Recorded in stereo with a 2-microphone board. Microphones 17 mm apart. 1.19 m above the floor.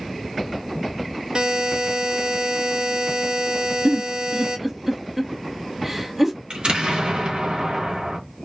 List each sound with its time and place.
1.4 s a buzzer: 45° right (ahead or behind), 0.6 m
3.9 s a giggle: 15° right (ahead or behind), 0.5 m
6.5 s an explosion: 75° right (ahead or behind), 0.8 m